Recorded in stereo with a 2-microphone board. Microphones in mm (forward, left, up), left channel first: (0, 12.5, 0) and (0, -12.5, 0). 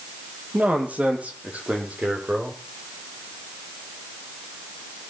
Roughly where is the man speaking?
Right.